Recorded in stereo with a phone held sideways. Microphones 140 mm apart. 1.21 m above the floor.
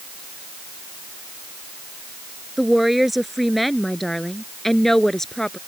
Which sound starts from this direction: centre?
A woman speaking, at 2.6 s.